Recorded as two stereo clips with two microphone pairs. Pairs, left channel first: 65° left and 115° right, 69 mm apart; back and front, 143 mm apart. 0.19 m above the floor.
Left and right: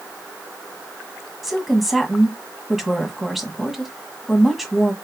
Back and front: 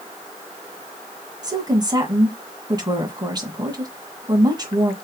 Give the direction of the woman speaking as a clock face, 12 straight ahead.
1 o'clock.